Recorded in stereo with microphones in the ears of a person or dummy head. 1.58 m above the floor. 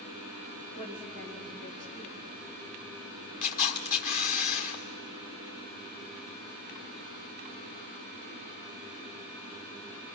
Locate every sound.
0.8 s a woman speaking: 30° left (ahead or behind), 3.5 m
3.4 s a camera shutter: 40° left (ahead or behind), 1.6 m